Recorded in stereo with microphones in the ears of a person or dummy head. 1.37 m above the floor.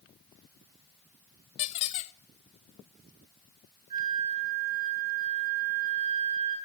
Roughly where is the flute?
Right.